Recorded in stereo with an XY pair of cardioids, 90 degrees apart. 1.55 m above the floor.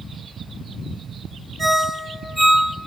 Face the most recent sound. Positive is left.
turn(degrees=-20)